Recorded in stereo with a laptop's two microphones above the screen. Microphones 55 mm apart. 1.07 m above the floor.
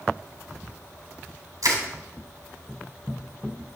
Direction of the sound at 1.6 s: 70° right (ahead or behind).